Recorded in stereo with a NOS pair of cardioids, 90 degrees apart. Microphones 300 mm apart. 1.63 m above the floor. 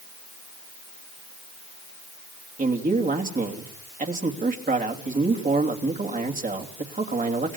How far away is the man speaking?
About 3 m.